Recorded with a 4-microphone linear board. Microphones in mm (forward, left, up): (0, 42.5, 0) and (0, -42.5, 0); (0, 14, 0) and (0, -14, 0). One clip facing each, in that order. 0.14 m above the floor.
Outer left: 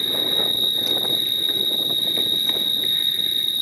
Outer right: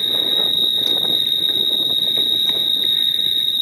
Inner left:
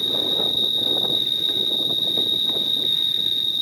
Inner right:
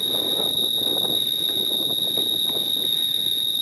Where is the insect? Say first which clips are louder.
Outer right 1 dB, inner left 1 dB; 10° left (ahead or behind), 1.2 m.